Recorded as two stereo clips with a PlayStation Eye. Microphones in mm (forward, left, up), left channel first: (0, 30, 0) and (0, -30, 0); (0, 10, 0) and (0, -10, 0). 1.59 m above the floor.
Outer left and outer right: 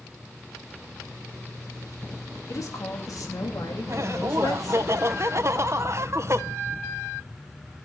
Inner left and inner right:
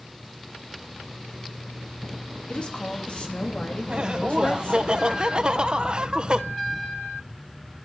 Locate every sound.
2.5 s a woman speaking: 60° left (ahead or behind), 3 m; by 4.9 s 90° left, 3.5 m
3.9 s laughter: 50° right (ahead or behind), 1.3 m